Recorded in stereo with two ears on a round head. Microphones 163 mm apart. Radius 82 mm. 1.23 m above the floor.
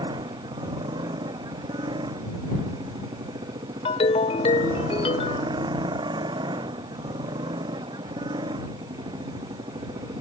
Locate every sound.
0.0 s a motorcycle: 25° right (ahead or behind)
3.9 s a ringtone: 35° left (ahead or behind)